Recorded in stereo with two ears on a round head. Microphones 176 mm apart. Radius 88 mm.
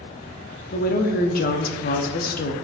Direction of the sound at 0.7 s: 45° left (ahead or behind).